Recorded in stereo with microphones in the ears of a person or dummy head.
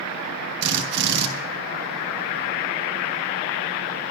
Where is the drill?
65° right (ahead or behind), 1.8 m.